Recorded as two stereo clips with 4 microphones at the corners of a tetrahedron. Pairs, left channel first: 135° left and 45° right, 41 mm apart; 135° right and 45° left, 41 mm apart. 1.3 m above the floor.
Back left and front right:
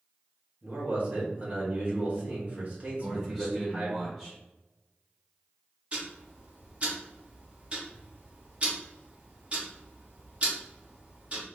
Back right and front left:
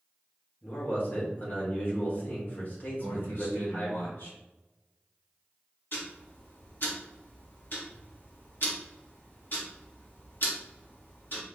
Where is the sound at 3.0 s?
125° right, 1.6 m.